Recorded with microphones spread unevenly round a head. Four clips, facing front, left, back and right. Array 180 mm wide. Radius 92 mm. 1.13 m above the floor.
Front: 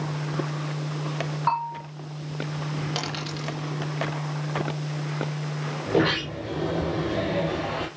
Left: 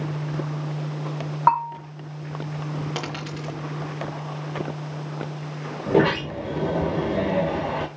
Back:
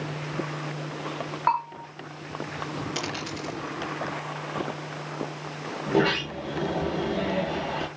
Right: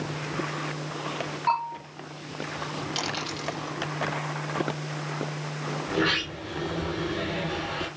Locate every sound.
1.5 s a bell: 95° left, 6 m
3.0 s a dropped coin: 75° left, 3.5 m
5.9 s a sliding door: 80° left, 5 m